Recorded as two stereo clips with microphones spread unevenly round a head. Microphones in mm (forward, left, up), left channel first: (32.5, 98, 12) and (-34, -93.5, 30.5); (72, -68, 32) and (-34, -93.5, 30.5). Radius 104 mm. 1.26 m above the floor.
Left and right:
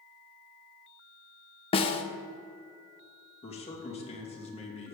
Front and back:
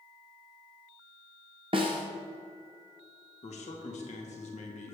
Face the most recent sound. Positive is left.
turn(degrees=10)